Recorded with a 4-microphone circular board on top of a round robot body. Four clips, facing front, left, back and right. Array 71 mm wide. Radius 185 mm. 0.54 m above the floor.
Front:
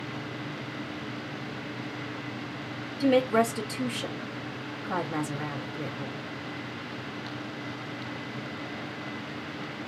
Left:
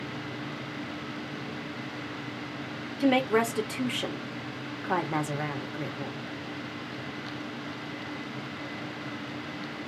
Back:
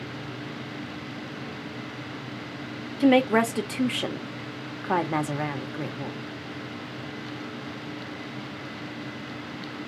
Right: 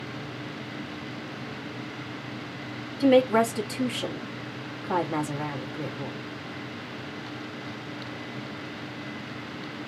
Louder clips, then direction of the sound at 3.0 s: Right 4 dB, back 3 dB; 170° left.